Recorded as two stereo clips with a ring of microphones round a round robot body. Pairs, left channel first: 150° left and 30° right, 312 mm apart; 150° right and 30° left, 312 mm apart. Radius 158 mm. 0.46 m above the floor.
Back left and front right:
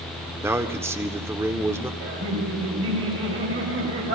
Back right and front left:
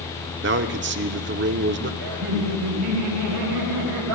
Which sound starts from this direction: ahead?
Laughter, at 2.0 s.